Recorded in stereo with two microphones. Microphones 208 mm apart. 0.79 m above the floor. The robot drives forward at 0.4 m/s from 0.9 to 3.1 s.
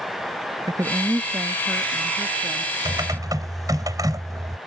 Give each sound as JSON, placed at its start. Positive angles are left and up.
{"t": 0.7, "sound": "a woman speaking", "side_deg": -15}
{"t": 2.9, "sound": "typing on a keyboard", "side_deg": -20}